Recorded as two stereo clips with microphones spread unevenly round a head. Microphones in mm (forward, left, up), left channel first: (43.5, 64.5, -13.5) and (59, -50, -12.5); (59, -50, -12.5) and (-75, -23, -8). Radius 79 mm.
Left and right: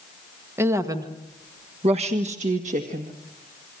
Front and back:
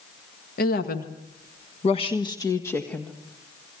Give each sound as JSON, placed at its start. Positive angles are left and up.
{"t": 0.6, "sound": "a woman speaking", "azimuth_deg": -15, "distance_m": 1.9}